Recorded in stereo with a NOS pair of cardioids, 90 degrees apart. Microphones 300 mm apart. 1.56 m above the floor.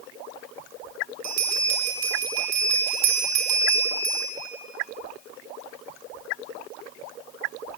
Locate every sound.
1.2 s a bell: 65° right, 5.5 m